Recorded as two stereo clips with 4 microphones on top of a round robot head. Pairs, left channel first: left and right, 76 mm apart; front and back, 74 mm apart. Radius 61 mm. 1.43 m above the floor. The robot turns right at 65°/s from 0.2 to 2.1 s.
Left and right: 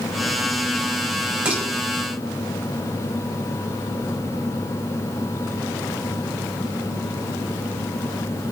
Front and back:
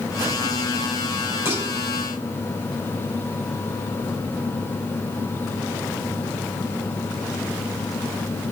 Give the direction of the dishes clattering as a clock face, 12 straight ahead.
1 o'clock.